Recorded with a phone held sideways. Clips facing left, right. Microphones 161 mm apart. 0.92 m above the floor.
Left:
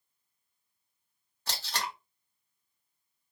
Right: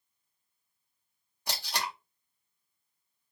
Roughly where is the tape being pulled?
Centre.